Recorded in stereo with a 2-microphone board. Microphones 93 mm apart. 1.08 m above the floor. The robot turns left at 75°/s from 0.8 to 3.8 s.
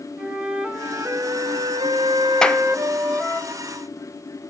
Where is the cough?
I don't hear a cough.